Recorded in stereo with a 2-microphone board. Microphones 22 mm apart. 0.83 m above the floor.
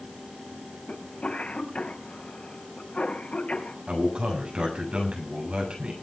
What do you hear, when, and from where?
0.9 s a cough: 80° left, 4.5 m
3.9 s a man speaking: 55° right (ahead or behind), 6.5 m